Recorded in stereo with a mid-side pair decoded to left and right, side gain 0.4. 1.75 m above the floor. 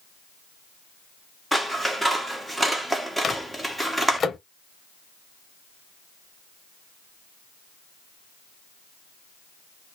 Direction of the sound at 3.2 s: 40° left.